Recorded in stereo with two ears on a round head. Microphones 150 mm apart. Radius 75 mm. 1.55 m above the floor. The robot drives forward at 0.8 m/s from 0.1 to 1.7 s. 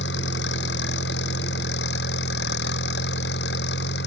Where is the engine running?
85° left; by 4.1 s 80° left.